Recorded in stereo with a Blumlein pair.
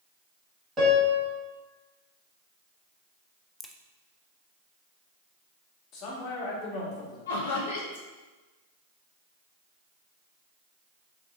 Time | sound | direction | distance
0.8 | a piano | 20° right | 1.7 m
3.6 | a crack | 5° left | 0.5 m
5.9 | a man speaking | 35° left | 2 m
7.3 | laughter | 65° left | 1.5 m